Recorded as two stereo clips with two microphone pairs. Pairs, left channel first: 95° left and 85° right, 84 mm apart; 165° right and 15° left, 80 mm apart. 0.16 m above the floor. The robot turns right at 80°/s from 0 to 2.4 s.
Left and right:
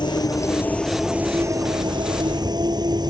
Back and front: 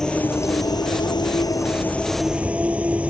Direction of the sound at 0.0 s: 110° left.